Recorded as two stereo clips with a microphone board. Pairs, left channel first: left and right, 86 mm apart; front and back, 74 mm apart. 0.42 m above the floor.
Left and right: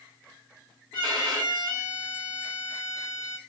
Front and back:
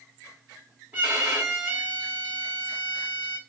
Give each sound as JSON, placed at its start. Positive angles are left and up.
{"t": 0.9, "sound": "a violin", "azimuth_deg": -115, "distance_m": 2.0}